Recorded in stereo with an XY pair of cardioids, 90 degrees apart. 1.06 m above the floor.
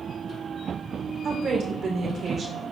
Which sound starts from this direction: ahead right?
A woman speaking, at 1.2 s.